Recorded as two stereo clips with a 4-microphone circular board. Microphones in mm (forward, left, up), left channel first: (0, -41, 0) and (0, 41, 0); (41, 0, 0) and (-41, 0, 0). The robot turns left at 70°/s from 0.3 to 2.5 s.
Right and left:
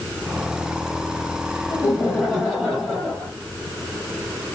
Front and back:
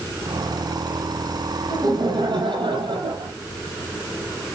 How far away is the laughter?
About 7.5 m.